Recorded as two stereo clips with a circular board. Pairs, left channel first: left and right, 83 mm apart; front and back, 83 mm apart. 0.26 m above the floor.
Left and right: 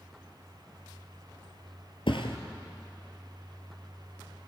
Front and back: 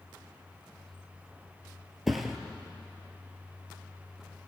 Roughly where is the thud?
Left.